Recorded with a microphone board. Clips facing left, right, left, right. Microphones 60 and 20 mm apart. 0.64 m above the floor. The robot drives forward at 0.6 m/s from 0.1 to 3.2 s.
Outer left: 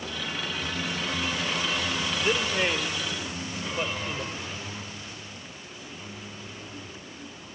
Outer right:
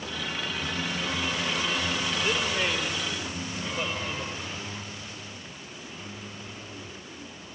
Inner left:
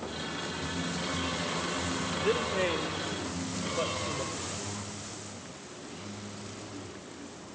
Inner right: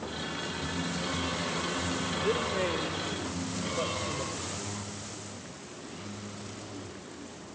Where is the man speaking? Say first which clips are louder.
Outer left 3 dB, inner left 1 dB; 15° left (ahead or behind), 1.9 m.